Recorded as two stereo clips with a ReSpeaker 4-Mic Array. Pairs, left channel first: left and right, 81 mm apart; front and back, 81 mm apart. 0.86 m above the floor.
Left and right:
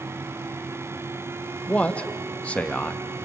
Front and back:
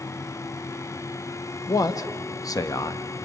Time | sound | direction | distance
1.7 | a man speaking | 20° left | 1.1 m